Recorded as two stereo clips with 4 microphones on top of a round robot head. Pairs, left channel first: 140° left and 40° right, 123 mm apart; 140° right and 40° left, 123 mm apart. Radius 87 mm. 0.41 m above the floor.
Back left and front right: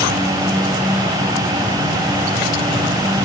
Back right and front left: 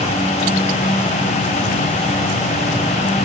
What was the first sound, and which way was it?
Only background noise.